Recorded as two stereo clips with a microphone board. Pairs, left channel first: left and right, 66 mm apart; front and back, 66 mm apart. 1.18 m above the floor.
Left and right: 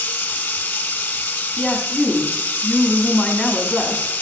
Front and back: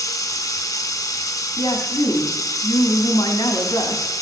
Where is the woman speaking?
Straight ahead, 2.5 m.